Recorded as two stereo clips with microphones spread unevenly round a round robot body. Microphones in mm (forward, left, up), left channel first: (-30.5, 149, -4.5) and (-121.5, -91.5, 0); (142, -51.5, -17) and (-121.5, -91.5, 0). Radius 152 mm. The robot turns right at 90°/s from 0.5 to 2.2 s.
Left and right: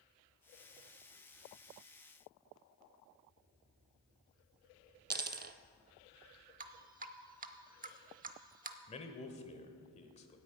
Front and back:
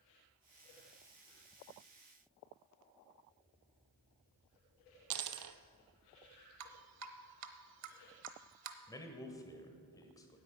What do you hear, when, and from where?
5.1 s a dropped coin: 165° right, 0.8 m
6.6 s dripping: 165° right, 0.9 m
8.9 s a man speaking: 65° left, 1.1 m